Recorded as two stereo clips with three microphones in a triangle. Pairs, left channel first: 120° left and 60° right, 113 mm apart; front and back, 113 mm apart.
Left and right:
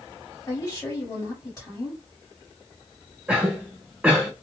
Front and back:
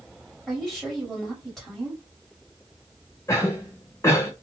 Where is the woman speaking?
80° left, 1.8 m.